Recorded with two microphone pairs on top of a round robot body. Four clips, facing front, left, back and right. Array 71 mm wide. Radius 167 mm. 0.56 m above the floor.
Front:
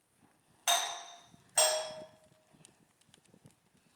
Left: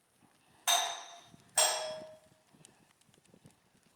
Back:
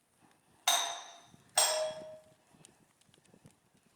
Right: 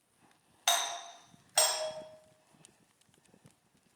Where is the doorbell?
100° right, 1.4 m.